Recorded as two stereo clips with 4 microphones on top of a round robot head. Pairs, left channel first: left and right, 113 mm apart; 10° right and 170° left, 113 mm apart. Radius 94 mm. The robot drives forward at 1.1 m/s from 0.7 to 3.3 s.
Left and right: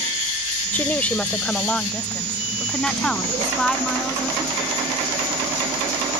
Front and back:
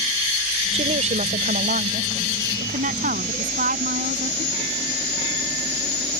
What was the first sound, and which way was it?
A woman speaking, 165° left.